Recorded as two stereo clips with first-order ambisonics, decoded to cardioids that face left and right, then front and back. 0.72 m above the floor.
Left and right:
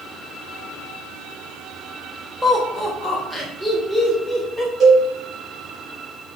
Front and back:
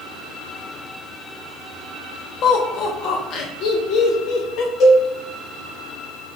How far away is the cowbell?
About 1.9 m.